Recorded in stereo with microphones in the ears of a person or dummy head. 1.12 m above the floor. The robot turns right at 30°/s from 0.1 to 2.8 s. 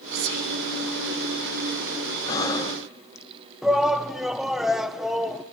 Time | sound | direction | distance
0.1 | whispering | 85° right | 3.5 m
2.3 | breathing | 25° left (ahead or behind) | 0.6 m
3.6 | a shout | 5° left (ahead or behind) | 0.6 m